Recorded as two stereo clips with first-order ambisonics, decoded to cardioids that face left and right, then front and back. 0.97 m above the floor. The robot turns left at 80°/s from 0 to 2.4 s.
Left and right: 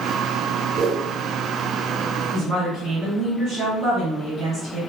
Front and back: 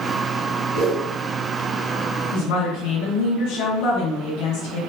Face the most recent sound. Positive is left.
turn(degrees=-25)